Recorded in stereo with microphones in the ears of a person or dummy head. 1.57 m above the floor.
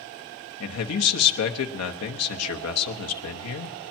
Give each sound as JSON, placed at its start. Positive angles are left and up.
{"t": 0.6, "sound": "a man speaking", "side_deg": 80, "distance_m": 1.0}